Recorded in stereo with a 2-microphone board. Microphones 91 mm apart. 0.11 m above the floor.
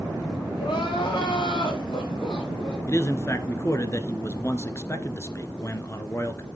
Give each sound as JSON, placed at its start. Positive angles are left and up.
{"t": 0.6, "sound": "crying", "side_deg": 60, "distance_m": 5.0}
{"t": 2.9, "sound": "a man speaking", "side_deg": 30, "distance_m": 1.3}